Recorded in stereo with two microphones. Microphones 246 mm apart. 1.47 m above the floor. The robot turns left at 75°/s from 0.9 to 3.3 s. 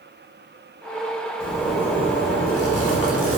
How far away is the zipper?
About 1.1 m.